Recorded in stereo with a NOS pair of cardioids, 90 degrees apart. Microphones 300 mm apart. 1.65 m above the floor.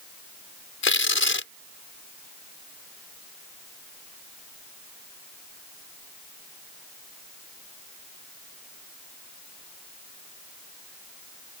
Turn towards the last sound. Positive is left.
turn(degrees=45)